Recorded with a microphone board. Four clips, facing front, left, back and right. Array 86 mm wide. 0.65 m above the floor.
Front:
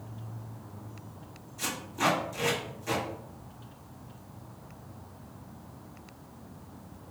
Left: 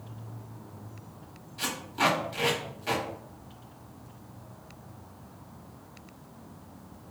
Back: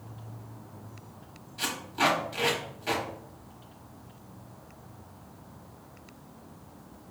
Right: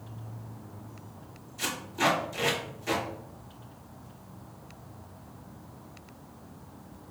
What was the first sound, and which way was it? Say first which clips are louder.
Tape being pulled: left 1 dB, back 2 dB; 135° left.